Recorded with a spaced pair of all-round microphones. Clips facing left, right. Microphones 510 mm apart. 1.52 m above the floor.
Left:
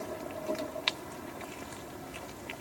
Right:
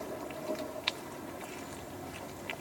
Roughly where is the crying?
I don't hear crying.